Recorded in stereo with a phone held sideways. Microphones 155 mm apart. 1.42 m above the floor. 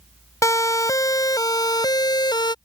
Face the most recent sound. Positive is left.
turn(degrees=30)  # may be behind; listen again after turning